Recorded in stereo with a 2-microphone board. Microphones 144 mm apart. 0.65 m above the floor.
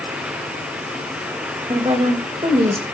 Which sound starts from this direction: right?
A woman speaking, at 1.7 s.